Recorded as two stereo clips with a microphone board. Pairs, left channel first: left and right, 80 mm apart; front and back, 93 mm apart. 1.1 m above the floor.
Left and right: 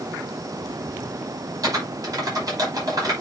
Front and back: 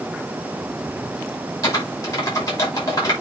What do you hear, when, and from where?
1.6 s typing on a keyboard: 50° right, 5 m